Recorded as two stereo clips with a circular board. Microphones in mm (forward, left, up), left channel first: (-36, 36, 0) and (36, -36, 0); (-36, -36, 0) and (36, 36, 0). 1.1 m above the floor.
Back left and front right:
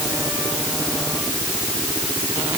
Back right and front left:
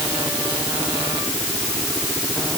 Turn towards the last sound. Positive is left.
No sound to turn to.